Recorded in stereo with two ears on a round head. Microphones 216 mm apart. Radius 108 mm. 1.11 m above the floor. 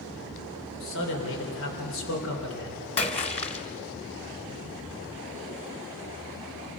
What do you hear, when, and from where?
0.8 s a man speaking: 60° left (ahead or behind), 3 m
3.0 s a splash: 25° left (ahead or behind), 2.5 m